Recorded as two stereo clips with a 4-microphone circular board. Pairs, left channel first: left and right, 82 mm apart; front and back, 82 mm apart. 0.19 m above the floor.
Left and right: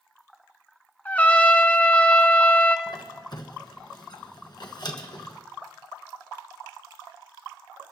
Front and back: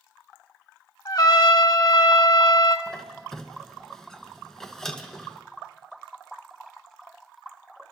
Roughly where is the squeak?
Left.